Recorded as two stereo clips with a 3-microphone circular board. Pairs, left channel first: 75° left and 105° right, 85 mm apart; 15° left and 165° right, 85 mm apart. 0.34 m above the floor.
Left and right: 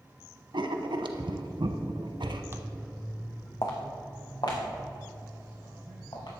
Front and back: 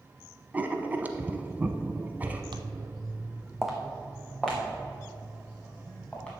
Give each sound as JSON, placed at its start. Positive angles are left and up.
{"t": 0.5, "sound": "writing", "azimuth_deg": -95, "distance_m": 0.8}
{"t": 2.5, "sound": "footsteps", "azimuth_deg": -160, "distance_m": 0.7}